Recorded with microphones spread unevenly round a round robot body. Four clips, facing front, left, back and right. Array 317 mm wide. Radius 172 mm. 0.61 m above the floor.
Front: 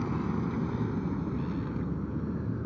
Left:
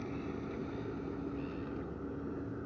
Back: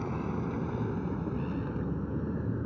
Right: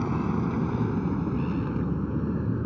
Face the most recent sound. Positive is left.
turn(degrees=-100)